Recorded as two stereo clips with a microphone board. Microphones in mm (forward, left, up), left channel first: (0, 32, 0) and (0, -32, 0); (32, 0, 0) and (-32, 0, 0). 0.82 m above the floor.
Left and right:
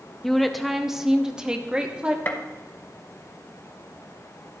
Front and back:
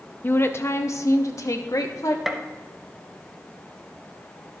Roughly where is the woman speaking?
Ahead.